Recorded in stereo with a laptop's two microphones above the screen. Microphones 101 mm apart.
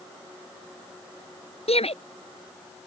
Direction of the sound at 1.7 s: 80° left.